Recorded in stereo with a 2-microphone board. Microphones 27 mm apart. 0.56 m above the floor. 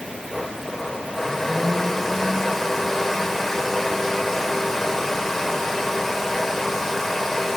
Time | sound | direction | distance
0.3 | a blender | 10° left (ahead or behind) | 2.5 m